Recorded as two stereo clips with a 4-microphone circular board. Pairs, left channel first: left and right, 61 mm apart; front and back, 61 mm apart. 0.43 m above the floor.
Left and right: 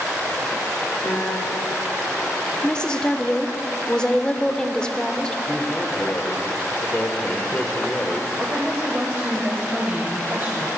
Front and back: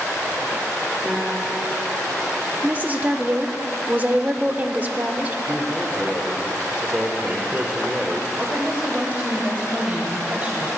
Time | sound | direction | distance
1.0 | a piano | 95° left | 5.5 m
2.6 | a woman speaking | 150° left | 0.8 m
5.5 | a man speaking | 135° left | 1.2 m
8.4 | a woman speaking | 130° right | 1.5 m